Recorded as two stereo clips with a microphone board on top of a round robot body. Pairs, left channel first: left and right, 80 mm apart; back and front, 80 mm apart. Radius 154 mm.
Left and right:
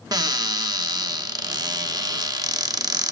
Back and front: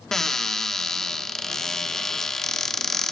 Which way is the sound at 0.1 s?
100° right.